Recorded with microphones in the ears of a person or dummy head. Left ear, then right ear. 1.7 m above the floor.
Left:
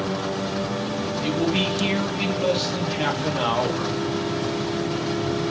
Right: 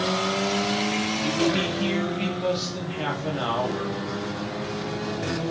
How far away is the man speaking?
About 1.7 m.